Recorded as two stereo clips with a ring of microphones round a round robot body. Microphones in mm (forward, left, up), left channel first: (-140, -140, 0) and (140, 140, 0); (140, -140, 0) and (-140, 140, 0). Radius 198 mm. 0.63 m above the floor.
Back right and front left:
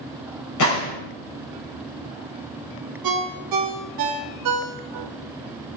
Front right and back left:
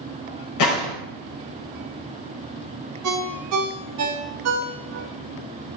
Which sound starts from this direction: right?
A gunshot, at 0.6 s.